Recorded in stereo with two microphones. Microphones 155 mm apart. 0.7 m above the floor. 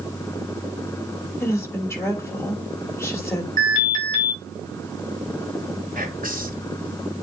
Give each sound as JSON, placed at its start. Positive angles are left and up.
{"t": 1.4, "sound": "a woman speaking", "side_deg": 15, "distance_m": 3.0}
{"t": 3.6, "sound": "an alarm", "side_deg": 25, "distance_m": 4.0}
{"t": 6.0, "sound": "whispering", "side_deg": -65, "distance_m": 2.0}